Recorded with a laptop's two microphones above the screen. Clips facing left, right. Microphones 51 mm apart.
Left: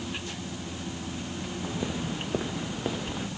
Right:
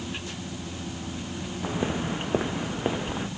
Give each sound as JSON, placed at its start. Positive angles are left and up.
{"t": 1.6, "sound": "footsteps", "side_deg": -35}